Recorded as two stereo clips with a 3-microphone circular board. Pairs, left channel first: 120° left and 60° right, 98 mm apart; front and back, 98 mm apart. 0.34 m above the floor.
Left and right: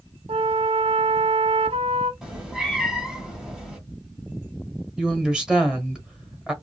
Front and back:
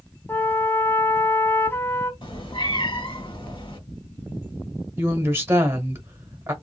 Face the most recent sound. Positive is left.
turn(degrees=-135)